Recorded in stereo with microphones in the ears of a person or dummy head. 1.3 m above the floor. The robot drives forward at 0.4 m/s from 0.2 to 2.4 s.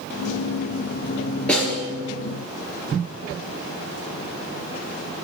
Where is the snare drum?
10° left (ahead or behind), 4 m.